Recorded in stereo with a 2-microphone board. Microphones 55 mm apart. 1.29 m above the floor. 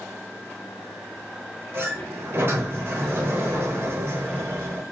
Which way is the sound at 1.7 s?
45° right (ahead or behind).